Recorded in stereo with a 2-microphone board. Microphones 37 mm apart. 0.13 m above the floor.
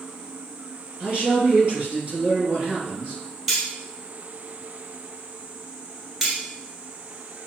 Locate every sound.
1.0 s a man speaking: 35° right (ahead or behind), 2.5 m
3.5 s cutlery clinking: 5° right (ahead or behind), 2 m
6.2 s cutlery clinking: 10° right (ahead or behind), 1.5 m